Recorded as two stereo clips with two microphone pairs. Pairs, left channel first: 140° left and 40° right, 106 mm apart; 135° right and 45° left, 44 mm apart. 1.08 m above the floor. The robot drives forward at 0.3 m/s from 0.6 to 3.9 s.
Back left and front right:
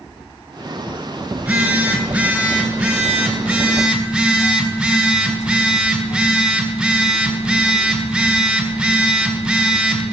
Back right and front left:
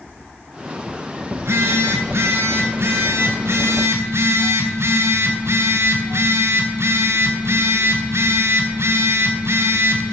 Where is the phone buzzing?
35° left, 4.5 m; by 10.1 s 45° left, 3.5 m.